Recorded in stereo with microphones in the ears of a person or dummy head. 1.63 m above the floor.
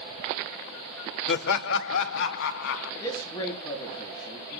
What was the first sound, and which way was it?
Laughter, 60° left (ahead or behind).